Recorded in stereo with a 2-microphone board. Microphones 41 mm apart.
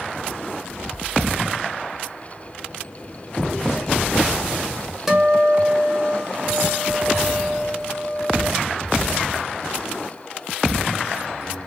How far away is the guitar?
About 0.9 m.